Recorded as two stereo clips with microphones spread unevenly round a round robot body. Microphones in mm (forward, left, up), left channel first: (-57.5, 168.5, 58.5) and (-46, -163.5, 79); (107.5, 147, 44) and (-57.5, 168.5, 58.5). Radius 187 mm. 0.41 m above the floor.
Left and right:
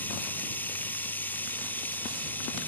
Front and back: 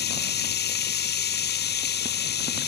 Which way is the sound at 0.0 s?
5° left.